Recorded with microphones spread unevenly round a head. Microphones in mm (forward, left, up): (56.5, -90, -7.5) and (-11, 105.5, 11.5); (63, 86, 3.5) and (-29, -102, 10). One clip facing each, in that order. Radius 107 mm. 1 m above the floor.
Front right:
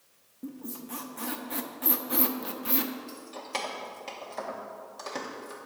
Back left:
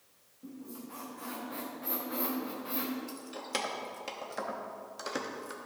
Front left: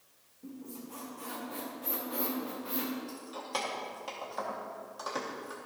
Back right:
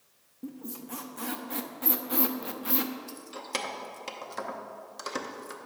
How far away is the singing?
No singing in this recording.